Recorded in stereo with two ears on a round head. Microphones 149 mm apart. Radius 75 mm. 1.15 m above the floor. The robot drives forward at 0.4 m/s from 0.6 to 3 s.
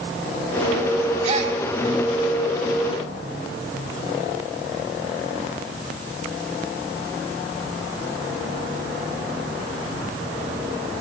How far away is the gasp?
About 1.6 m.